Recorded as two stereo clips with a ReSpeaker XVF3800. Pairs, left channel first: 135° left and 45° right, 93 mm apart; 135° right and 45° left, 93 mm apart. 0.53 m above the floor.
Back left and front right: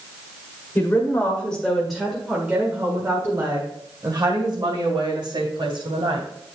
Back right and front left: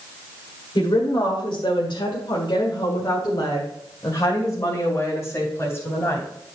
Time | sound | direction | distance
0.8 | a woman speaking | 160° right | 1.7 m